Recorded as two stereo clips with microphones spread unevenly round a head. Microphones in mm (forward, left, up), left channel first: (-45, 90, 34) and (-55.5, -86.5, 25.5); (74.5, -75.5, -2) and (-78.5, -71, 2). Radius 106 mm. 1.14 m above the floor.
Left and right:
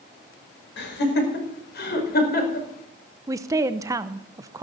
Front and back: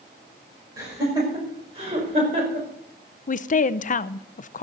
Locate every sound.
0.8 s laughter: 105° left, 5 m; by 2.7 s 120° left, 4.5 m
3.3 s a woman speaking: 25° right, 0.6 m